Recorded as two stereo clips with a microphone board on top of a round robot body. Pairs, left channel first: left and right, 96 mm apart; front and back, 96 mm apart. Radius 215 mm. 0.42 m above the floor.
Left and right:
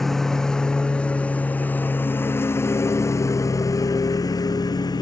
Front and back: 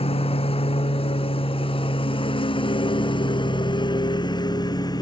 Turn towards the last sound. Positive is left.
turn(degrees=45)